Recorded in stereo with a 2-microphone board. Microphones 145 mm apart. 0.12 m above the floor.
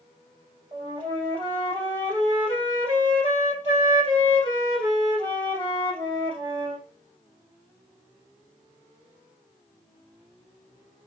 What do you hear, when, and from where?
0.7 s a flute: 35° right (ahead or behind), 2.5 m